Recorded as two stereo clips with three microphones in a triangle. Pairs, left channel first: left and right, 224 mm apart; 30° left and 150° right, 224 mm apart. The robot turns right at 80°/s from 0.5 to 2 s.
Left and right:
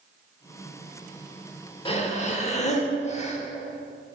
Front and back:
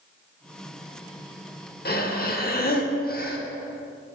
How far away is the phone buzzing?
No phone buzzing in this recording.